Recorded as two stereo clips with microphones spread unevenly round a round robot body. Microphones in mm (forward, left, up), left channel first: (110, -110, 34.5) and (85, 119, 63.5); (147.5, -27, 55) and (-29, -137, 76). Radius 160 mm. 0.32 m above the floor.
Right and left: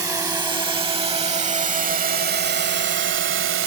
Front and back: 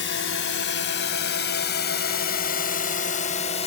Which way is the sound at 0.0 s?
20° left.